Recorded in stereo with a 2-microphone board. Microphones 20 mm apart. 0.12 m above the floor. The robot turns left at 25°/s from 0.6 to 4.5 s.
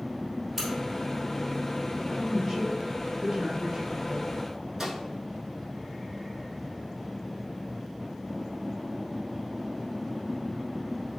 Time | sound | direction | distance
0.6 | a crack | 5° right (ahead or behind) | 1.8 m
2.0 | a woman speaking | 5° right | 1.5 m
4.8 | a microwave | 25° right (ahead or behind) | 1.0 m